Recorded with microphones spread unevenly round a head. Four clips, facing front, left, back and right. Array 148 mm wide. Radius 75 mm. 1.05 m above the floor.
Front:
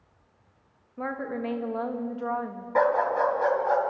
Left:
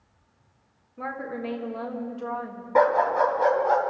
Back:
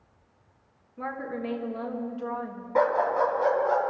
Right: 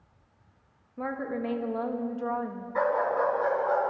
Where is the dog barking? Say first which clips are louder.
Left 6 dB, even; 60° left, 3 m.